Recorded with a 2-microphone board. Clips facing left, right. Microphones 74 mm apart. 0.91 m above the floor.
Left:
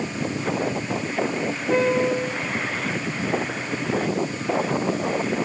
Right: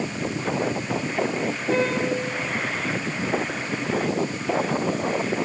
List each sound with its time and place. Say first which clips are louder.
1.7 s a piano: left 4 dB; 15° left (ahead or behind), 9.5 m